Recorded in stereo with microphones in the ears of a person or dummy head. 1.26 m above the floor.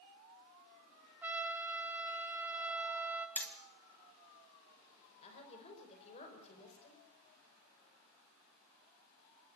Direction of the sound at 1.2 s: 10° right (ahead or behind).